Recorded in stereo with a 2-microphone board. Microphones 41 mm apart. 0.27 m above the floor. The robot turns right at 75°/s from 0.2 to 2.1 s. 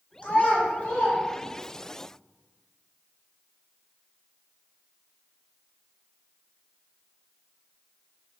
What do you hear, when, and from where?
0.2 s a child speaking: 30° left (ahead or behind), 1.3 m; by 1.9 s 5° left (ahead or behind), 1.3 m